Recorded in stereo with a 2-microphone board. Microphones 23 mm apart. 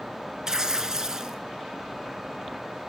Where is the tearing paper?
25° right (ahead or behind), 0.5 m.